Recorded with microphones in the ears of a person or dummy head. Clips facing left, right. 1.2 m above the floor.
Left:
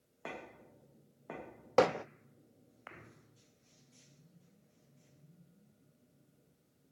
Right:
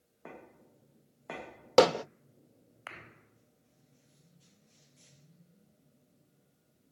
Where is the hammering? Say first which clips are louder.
Right 6 dB; 55° right (ahead or behind), 0.9 m.